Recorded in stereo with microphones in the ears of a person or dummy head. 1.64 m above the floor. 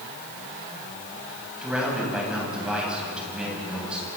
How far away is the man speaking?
About 10 m.